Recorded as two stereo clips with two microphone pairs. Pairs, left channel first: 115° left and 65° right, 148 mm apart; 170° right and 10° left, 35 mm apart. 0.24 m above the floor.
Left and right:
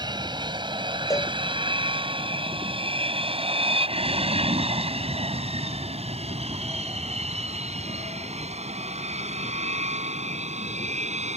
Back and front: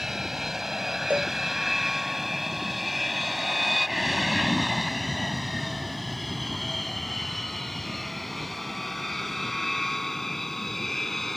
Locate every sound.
0.0 s an aircraft: 60° right; by 11.4 s 90° right
1.1 s a cowbell: 50° left